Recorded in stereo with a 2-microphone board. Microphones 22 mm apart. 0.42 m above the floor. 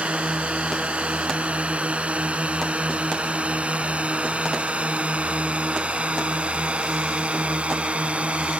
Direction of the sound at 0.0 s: 75° right (ahead or behind).